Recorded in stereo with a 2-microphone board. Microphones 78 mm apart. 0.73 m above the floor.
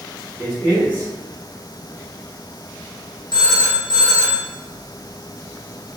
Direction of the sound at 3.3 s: 65° left (ahead or behind).